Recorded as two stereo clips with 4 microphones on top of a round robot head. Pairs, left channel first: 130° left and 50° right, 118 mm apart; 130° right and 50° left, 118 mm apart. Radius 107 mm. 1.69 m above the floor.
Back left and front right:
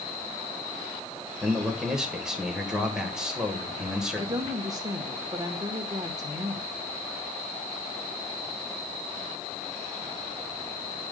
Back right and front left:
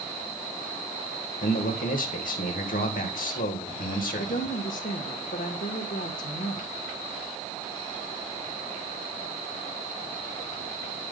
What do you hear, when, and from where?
1.4 s a man speaking: 135° right, 1.5 m
4.2 s a woman speaking: 110° right, 1.3 m